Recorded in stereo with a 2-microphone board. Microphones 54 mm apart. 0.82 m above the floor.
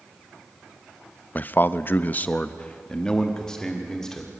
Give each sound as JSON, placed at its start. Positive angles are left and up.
{"t": 1.4, "sound": "a man speaking", "side_deg": 30, "distance_m": 0.5}